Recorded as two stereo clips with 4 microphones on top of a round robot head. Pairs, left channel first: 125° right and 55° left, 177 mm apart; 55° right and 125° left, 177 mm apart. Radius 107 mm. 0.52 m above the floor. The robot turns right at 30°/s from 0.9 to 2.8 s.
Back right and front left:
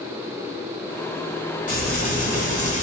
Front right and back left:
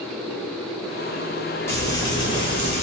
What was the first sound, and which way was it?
Frying, 130° right.